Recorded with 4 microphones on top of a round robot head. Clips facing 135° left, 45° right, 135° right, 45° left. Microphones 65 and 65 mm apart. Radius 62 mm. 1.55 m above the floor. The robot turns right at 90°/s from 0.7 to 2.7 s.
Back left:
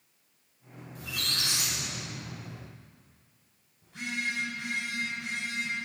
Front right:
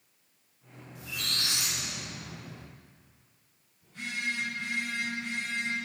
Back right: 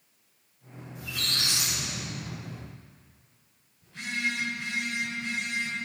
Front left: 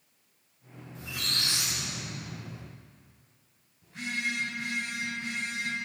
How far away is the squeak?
About 0.5 m.